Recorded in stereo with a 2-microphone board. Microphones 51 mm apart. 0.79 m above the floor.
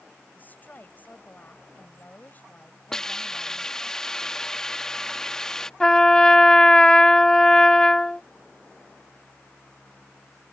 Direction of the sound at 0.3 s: 35° left (ahead or behind).